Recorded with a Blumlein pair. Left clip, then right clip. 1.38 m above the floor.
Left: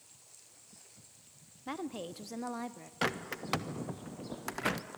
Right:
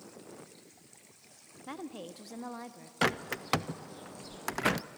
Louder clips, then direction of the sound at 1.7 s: Left 3 dB; 10° left.